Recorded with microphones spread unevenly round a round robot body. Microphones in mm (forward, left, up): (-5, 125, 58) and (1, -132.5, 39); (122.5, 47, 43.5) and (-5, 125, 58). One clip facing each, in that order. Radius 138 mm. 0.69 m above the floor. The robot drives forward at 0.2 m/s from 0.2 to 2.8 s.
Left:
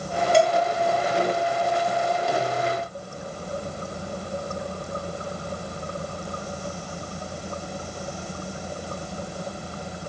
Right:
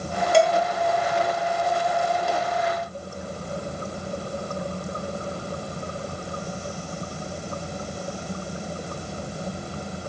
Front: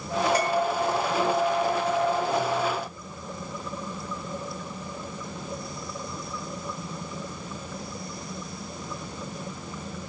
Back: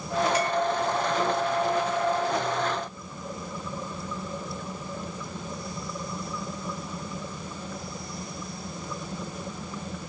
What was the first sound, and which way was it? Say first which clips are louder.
Dishes clattering: right 1 dB, front 1 dB; 100° right.